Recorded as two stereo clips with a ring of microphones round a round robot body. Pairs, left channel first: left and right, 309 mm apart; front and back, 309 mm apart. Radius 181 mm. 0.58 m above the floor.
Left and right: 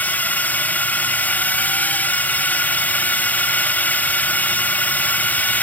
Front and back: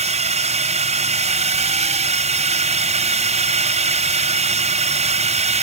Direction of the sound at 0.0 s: 165° left.